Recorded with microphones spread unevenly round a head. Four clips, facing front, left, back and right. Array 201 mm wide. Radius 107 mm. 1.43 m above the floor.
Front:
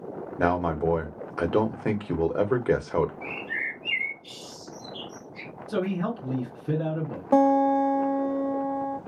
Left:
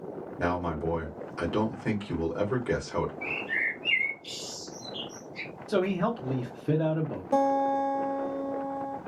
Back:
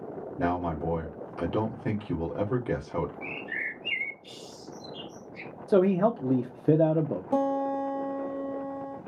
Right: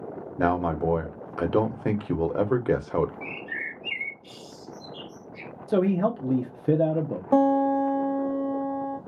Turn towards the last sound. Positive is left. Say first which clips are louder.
# right 4 dB, front 8 dB
turn(degrees=-35)